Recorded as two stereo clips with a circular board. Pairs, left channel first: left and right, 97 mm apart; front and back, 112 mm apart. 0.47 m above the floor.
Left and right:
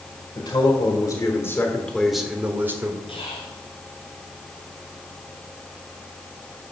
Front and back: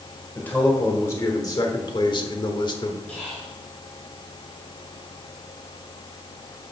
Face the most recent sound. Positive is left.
turn(degrees=80)